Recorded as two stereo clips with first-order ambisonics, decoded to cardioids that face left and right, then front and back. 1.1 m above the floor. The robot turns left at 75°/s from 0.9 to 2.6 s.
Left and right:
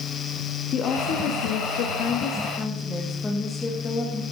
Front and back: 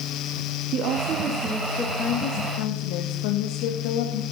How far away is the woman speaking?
About 1.4 m.